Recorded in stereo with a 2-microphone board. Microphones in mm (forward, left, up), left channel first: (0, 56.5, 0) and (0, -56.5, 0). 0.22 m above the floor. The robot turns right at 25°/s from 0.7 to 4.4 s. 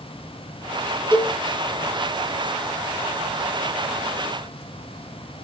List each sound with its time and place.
1.1 s a cowbell: 20° left (ahead or behind), 6 m; by 1.4 s 10° left (ahead or behind), 6 m